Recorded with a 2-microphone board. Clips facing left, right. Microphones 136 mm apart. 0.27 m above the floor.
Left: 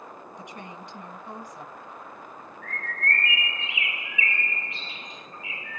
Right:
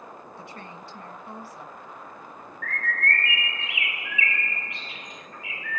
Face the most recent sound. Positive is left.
turn(degrees=30)  # may be behind; listen again after turning